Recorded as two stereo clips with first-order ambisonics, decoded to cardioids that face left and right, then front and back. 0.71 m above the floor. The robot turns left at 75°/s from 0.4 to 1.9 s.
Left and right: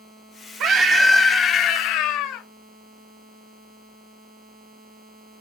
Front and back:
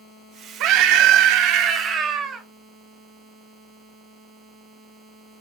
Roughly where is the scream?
Behind right.